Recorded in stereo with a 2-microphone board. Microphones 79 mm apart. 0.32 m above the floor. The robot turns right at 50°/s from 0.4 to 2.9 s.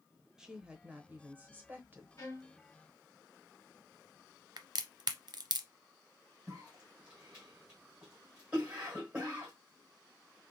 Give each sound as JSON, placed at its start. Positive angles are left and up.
{"t": 0.4, "sound": "a woman speaking", "side_deg": -5, "distance_m": 0.9}
{"t": 2.2, "sound": "a violin", "side_deg": 35, "distance_m": 2.0}
{"t": 4.6, "sound": "a crack", "side_deg": -60, "distance_m": 0.5}
{"t": 6.5, "sound": "a cough", "side_deg": -15, "distance_m": 1.2}